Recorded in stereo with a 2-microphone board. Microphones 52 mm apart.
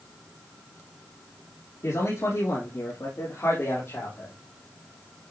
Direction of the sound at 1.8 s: 70° left (ahead or behind).